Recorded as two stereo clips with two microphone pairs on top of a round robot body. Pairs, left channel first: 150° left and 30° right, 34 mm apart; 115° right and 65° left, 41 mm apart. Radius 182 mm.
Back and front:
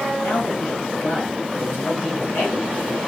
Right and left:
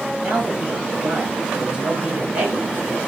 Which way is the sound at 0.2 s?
135° left.